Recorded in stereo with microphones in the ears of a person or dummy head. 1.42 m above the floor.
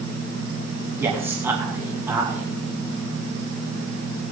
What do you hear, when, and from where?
1.0 s a man speaking: 10° right (ahead or behind), 2.5 m